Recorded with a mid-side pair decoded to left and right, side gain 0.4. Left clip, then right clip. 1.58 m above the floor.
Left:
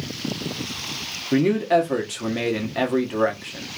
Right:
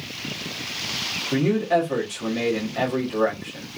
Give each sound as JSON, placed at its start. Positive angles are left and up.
{"t": 1.3, "sound": "a man speaking", "azimuth_deg": 40, "distance_m": 1.1}